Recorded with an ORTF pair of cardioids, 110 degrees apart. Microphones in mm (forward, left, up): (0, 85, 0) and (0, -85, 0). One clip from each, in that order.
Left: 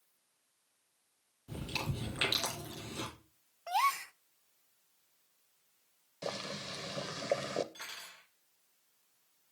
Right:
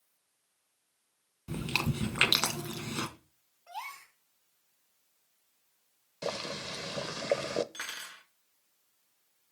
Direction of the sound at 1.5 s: 65° right.